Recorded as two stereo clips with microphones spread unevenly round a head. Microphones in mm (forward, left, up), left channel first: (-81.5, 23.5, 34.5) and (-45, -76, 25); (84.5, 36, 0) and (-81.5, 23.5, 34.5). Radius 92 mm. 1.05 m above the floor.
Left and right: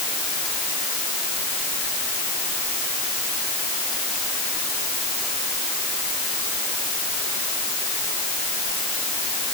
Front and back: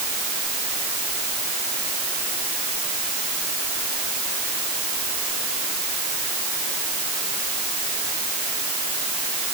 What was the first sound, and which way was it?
Only background noise.